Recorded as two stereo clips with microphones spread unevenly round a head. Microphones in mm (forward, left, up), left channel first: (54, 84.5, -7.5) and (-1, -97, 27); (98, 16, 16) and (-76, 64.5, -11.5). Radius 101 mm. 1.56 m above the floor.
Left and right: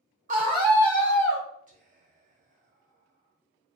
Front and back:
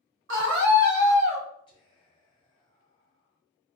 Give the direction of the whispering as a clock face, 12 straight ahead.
2 o'clock.